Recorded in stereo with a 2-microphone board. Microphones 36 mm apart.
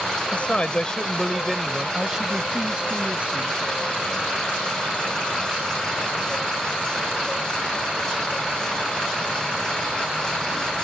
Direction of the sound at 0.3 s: 45° left (ahead or behind).